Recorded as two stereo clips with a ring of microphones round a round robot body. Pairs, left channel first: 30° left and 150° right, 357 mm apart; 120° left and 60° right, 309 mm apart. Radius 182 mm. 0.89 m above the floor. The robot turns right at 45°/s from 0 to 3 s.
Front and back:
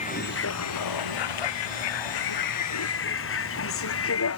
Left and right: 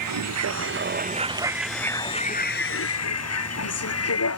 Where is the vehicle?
45° right; by 4.4 s 80° left.